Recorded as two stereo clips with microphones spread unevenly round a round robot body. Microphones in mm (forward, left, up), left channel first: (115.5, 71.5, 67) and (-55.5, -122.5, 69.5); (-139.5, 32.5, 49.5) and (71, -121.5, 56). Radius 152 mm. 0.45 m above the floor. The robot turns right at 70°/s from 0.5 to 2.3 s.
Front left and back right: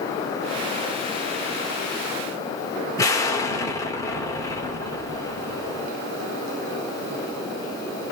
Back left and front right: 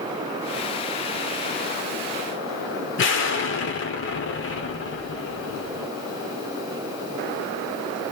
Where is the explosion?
125° left, 1.1 m.